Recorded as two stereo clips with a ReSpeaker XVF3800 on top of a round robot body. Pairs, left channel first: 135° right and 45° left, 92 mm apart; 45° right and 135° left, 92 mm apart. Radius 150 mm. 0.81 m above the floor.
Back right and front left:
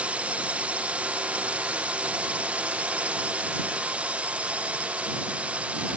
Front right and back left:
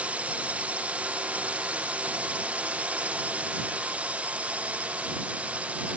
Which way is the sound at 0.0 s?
90° left.